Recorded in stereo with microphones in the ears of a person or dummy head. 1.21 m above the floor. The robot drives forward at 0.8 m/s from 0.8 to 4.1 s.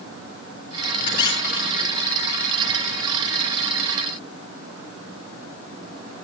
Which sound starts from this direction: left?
A squeak, at 1.1 s.